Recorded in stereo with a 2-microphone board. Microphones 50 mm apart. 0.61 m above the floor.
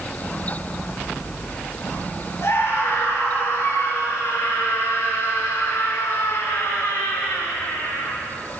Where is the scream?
55° left (ahead or behind), 8 m; by 8.2 s 75° left (ahead or behind), 6 m.